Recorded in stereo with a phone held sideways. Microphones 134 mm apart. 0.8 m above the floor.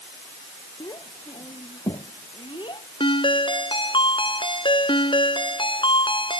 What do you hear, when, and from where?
0.8 s a child speaking: 30° left (ahead or behind); by 2.9 s 35° left (ahead or behind)
3.0 s a ringtone: 40° left (ahead or behind)